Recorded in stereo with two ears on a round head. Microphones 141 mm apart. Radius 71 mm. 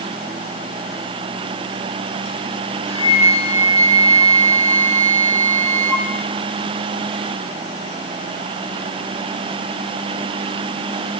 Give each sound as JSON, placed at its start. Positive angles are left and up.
{"t": 2.9, "sound": "a flute", "side_deg": -15, "distance_m": 1.2}